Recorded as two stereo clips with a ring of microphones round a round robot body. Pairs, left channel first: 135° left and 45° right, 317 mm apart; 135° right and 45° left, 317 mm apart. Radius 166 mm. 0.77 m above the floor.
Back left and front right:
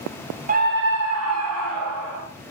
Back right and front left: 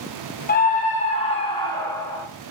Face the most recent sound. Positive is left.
turn(degrees=-55)